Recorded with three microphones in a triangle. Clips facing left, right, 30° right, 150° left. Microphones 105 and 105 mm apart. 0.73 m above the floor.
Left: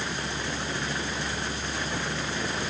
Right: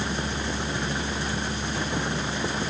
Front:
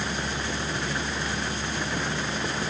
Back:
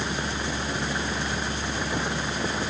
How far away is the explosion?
I don't hear an explosion.